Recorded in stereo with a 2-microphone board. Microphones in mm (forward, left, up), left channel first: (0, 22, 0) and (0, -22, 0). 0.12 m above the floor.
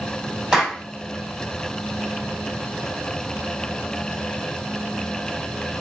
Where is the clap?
20° right (ahead or behind), 4.5 m.